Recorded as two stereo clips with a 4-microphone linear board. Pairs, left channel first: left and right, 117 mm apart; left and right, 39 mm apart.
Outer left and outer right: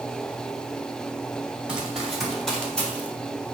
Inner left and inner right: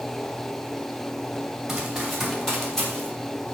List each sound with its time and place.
1.7 s running footsteps: 5° right (ahead or behind), 5.5 m; by 3.1 s 15° left (ahead or behind), 5 m